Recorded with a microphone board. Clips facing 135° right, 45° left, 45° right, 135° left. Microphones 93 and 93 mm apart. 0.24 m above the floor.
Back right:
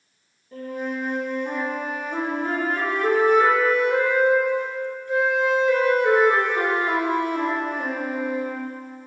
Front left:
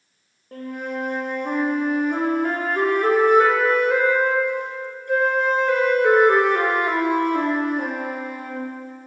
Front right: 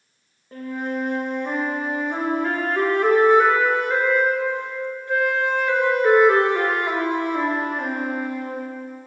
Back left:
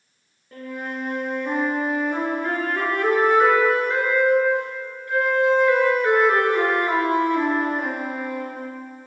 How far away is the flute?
About 3 m.